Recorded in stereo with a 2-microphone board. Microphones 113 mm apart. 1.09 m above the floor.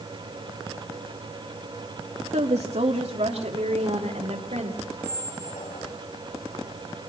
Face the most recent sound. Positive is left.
turn(degrees=75)  # may be behind; listen again after turning